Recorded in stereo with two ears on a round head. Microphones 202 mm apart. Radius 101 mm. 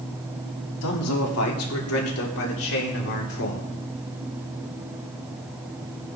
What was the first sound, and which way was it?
A man speaking, 75° left (ahead or behind).